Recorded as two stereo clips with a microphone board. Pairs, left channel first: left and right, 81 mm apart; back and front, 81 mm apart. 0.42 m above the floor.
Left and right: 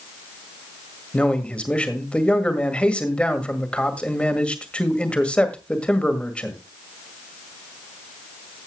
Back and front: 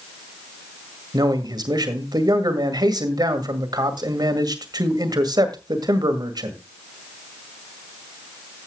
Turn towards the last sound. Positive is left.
turn(degrees=15)